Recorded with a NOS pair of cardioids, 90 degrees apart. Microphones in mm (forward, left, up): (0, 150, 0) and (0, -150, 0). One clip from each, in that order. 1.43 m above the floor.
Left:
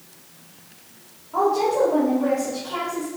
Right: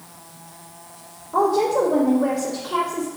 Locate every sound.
1.3 s a woman speaking: 35° right, 2.5 m